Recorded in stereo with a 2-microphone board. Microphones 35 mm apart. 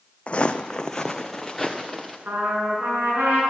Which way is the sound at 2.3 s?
70° right (ahead or behind).